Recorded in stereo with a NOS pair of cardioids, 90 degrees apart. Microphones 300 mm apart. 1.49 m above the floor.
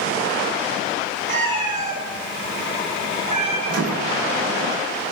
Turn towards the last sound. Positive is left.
turn(degrees=-60)